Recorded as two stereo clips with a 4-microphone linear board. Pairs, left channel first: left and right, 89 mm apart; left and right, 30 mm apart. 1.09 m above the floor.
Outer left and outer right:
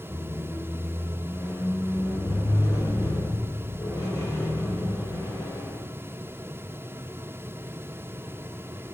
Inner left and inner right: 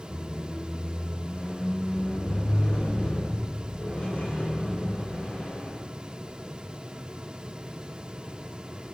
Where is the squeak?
40° left (ahead or behind), 1.5 m.